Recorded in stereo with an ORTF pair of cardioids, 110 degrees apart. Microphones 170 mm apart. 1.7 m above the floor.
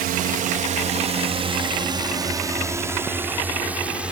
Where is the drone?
65° right; by 4.1 s 5° right.